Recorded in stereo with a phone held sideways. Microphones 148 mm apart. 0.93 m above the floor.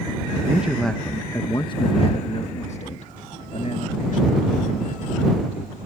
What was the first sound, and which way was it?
A man speaking, 15° right (ahead or behind).